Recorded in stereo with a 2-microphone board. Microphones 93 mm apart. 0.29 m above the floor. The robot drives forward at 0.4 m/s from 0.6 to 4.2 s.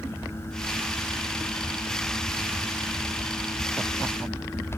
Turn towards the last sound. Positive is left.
No sound to turn to.